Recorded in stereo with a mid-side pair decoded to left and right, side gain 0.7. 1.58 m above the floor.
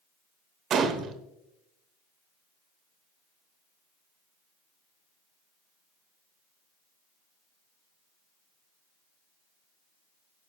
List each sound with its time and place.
0.7 s a gunshot: 40° right, 1.1 m